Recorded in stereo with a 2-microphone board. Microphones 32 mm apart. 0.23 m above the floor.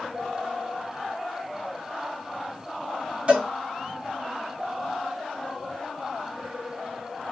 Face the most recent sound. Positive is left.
turn(degrees=-40)  # may be behind; listen again after turning